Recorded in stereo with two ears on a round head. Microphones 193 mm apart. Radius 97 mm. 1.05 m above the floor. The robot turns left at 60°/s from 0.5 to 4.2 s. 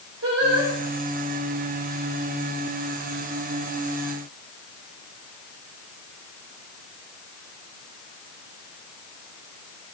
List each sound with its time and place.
0.2 s singing: 60° right (ahead or behind), 5 m; by 0.7 s 70° right (ahead or behind), 5 m